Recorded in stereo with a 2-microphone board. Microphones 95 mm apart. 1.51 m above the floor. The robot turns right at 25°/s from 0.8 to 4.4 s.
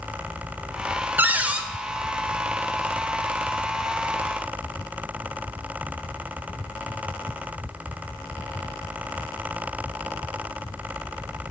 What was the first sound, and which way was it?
A cupboard door, 20° right (ahead or behind).